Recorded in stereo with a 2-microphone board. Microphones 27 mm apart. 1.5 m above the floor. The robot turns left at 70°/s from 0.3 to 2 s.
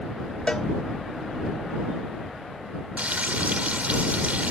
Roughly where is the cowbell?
Left.